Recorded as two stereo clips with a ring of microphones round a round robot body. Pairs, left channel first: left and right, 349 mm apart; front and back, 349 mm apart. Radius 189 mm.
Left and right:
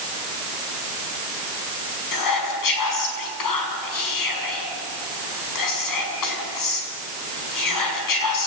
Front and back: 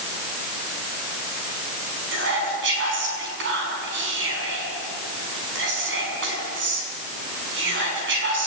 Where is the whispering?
120° left, 5.5 m.